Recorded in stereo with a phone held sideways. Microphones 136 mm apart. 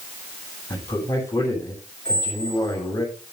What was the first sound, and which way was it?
A man speaking, 20° left (ahead or behind).